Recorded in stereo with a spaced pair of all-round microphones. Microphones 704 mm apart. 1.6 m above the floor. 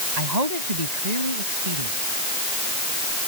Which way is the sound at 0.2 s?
70° right (ahead or behind).